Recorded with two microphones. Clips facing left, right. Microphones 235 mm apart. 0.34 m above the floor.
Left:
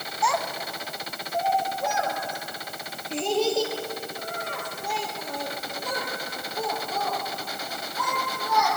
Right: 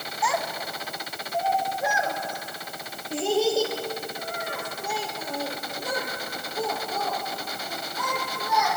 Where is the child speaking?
5° right (ahead or behind), 1.6 m; by 8.7 s 10° right (ahead or behind), 8.5 m.